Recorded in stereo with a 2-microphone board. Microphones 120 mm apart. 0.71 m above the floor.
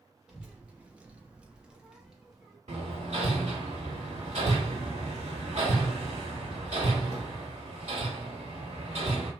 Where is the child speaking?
10° right (ahead or behind), 0.7 m; by 2.6 s 5° right (ahead or behind), 1.1 m.